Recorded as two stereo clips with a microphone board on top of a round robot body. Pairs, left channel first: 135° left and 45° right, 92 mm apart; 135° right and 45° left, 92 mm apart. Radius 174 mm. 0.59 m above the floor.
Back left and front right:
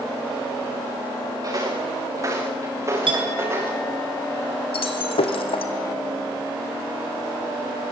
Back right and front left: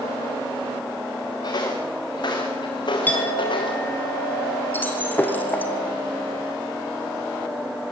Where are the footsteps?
90° right, 6 m; by 3.8 s 105° right, 6.5 m.